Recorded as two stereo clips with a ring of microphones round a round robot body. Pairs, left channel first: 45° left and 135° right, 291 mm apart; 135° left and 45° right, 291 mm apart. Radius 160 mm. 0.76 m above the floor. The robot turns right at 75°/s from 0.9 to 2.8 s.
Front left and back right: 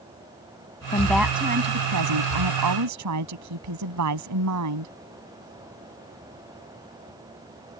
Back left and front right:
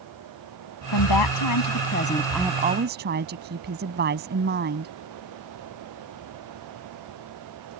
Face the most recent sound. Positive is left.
turn(degrees=-105)